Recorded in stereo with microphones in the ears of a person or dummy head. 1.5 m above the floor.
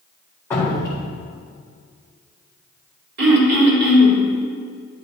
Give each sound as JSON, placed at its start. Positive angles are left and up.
{"t": 0.5, "sound": "dripping", "side_deg": 15, "distance_m": 1.8}
{"t": 3.2, "sound": "throat clearing", "side_deg": -65, "distance_m": 1.7}